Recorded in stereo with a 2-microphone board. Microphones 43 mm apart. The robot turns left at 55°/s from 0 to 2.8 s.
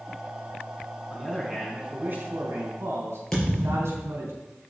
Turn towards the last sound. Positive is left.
turn(degrees=15)  # may be behind; listen again after turning